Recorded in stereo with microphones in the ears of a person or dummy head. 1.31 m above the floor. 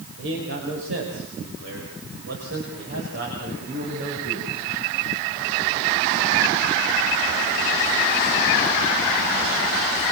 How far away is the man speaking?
About 5 m.